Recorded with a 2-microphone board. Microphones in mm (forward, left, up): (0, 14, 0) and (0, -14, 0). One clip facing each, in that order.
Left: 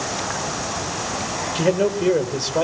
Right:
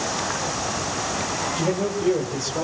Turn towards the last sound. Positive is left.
turn(degrees=70)  # may be behind; listen again after turning